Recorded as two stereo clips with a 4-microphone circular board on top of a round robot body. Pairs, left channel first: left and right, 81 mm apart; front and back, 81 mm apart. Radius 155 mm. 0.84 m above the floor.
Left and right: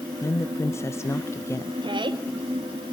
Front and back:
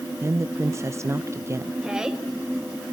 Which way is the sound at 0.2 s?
135° left.